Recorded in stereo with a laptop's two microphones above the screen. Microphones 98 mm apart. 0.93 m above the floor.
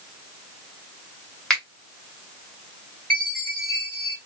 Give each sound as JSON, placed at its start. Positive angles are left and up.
{"t": 1.5, "sound": "a finger snap", "side_deg": 10, "distance_m": 1.6}
{"t": 3.1, "sound": "a chime", "side_deg": 10, "distance_m": 1.8}